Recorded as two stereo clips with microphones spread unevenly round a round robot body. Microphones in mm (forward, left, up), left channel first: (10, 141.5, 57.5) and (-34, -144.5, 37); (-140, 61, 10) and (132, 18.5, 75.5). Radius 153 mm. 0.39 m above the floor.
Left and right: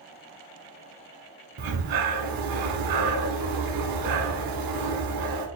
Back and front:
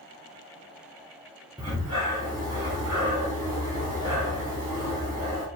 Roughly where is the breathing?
Right.